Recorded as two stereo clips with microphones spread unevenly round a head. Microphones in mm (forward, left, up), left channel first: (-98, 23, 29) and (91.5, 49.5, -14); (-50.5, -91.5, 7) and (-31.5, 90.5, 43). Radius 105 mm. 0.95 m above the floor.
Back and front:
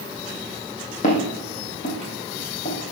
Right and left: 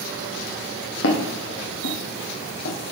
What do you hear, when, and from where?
1.0 s footsteps: 120° right, 2.5 m; by 2.9 s 130° right, 1.5 m